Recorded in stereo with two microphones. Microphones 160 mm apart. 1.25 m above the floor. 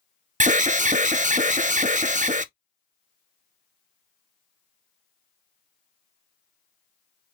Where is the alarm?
50° right (ahead or behind), 0.5 m.